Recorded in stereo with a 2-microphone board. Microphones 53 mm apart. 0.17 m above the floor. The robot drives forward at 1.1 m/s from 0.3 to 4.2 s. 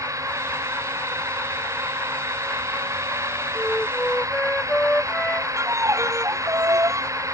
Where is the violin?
70° right (ahead or behind).